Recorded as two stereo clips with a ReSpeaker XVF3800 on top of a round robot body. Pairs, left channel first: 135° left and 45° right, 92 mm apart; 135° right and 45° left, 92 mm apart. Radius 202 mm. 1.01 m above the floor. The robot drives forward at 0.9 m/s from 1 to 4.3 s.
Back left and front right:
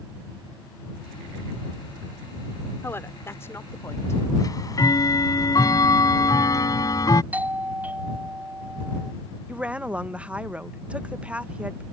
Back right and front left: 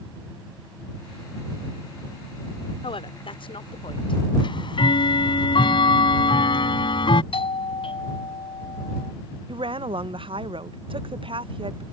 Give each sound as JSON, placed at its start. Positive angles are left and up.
{"t": 2.8, "sound": "a woman speaking", "azimuth_deg": -160}
{"t": 4.4, "sound": "ticking", "azimuth_deg": -170}
{"t": 7.3, "sound": "a doorbell", "azimuth_deg": -120}
{"t": 9.5, "sound": "a woman speaking", "azimuth_deg": 30}